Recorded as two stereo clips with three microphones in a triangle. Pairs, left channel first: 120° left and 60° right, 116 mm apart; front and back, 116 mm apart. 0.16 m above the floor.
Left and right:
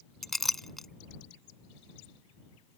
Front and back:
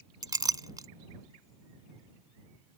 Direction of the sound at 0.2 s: 150° right.